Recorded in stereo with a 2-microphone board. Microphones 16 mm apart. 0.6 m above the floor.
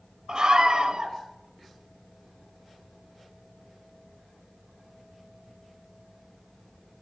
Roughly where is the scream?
Right.